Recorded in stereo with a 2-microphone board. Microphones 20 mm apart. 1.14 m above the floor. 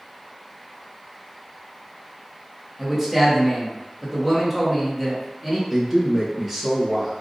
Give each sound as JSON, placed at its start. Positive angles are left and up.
{"t": 2.8, "sound": "a man speaking", "side_deg": -10, "distance_m": 1.2}
{"t": 5.7, "sound": "a man speaking", "side_deg": -20, "distance_m": 0.9}